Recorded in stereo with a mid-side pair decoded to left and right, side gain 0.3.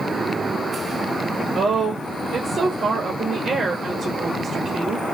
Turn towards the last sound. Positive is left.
turn(degrees=-70)